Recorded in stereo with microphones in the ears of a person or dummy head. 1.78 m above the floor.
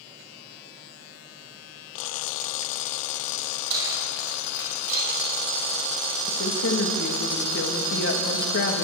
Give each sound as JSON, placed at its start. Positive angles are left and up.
{"t": 3.7, "sound": "keys jangling", "side_deg": -80, "distance_m": 6.0}
{"t": 6.3, "sound": "a woman speaking", "side_deg": 60, "distance_m": 2.5}